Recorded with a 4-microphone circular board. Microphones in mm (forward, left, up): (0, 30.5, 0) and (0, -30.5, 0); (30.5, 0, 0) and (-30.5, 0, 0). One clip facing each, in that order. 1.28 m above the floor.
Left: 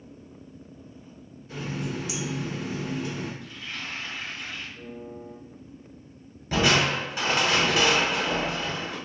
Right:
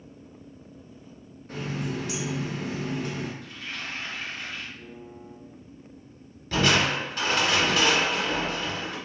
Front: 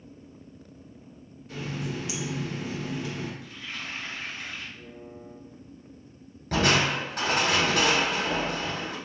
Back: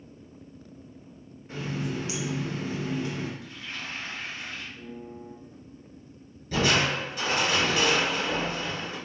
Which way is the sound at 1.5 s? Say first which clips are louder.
Right 1 dB, back 2 dB; 125° right.